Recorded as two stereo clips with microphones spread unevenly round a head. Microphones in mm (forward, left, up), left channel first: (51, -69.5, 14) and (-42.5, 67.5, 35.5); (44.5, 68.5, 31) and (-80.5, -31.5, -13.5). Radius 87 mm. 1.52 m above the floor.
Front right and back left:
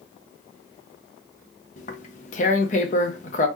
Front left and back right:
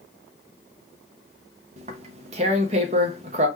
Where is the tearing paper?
90° right, 0.6 m.